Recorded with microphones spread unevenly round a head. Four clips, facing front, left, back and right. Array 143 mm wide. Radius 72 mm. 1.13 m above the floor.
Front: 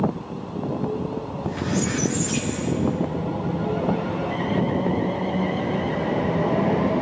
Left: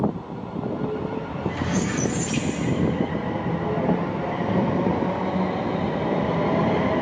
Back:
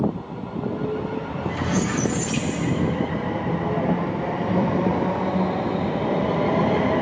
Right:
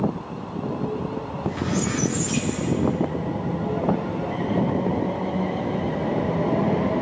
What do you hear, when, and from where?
1.3 s a squeak: 175° left, 4 m